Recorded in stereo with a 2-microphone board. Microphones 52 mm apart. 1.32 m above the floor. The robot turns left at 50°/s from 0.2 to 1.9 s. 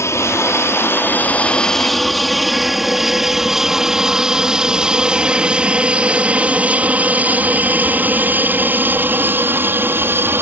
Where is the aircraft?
65° left (ahead or behind); by 10.4 s 50° right (ahead or behind).